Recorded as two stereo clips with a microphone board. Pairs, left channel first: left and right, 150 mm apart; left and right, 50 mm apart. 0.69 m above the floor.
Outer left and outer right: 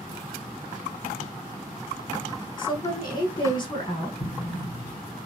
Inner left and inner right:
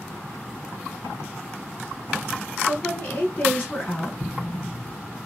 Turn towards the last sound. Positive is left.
turn(degrees=65)  # may be behind; listen again after turning